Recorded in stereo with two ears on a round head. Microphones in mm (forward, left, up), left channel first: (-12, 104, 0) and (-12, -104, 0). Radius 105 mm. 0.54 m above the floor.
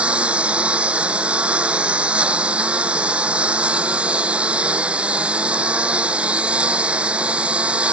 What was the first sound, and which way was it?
A lawn mower, 5° right (ahead or behind).